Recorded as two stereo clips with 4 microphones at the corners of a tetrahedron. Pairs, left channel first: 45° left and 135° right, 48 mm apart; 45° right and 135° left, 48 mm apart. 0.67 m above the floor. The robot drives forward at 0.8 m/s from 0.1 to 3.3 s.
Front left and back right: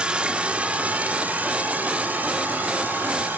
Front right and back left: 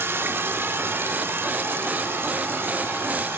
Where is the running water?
160° left, 1.2 m; by 3.4 s 175° left, 3.5 m.